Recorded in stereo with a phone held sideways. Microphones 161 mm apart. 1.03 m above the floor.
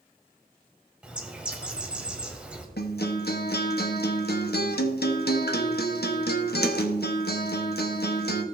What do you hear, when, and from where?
1.0 s a bird: 5° right (ahead or behind), 1.3 m
2.8 s a guitar: 80° left, 1.0 m